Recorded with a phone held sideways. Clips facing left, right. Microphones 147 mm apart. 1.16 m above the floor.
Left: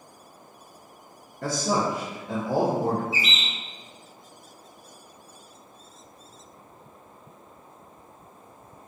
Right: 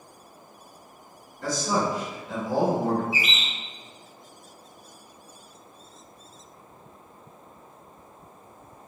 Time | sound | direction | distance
1.4 | a man speaking | 55° left (ahead or behind) | 0.6 m
3.1 | a bird | 15° right (ahead or behind) | 0.8 m